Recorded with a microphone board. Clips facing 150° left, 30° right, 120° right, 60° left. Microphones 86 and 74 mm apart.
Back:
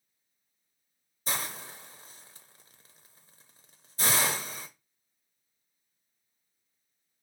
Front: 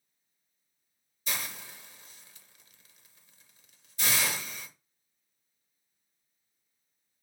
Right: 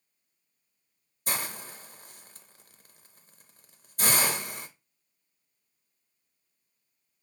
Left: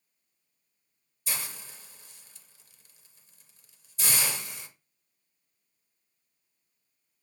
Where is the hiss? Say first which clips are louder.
Back 3 dB, right 5 dB; 160° right, 0.6 m.